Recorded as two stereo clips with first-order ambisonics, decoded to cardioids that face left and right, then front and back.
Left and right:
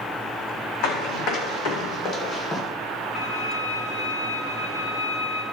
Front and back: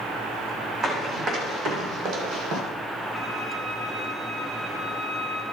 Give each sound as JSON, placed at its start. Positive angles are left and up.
{"t": 0.8, "sound": "running footsteps", "azimuth_deg": 120, "distance_m": 3.0}
{"t": 3.1, "sound": "a violin", "azimuth_deg": 90, "distance_m": 2.0}